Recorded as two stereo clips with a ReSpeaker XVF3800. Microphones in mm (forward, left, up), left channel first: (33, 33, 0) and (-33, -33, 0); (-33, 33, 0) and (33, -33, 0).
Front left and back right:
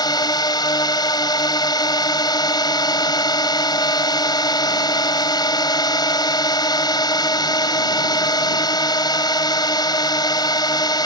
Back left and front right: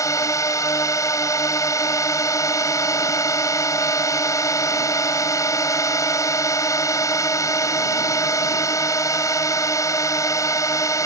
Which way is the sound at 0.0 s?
85° left.